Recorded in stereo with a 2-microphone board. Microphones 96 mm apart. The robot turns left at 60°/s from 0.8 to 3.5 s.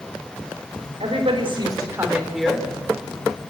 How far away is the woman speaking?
About 3.5 m.